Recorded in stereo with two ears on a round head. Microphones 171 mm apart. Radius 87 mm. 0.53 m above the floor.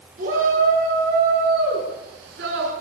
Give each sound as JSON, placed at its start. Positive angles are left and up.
{"t": 0.2, "sound": "a shout", "side_deg": -40, "distance_m": 9.0}